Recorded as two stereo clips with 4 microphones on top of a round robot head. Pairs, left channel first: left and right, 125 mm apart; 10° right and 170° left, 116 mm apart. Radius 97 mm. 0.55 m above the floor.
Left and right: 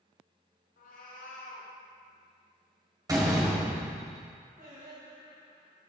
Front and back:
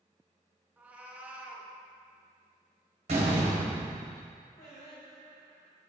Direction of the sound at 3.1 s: 150° right.